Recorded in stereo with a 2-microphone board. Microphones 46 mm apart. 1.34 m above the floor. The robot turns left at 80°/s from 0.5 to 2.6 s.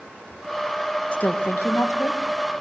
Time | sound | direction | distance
1.1 | a woman speaking | 150° left | 1.6 m